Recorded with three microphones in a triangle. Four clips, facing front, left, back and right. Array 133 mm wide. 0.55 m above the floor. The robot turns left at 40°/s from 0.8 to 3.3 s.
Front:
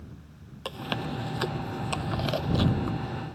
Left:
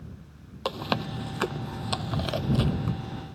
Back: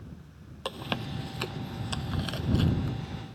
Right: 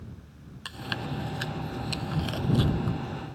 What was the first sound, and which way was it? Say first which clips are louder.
Chewing: left 6 dB, front 2 dB; 95° left.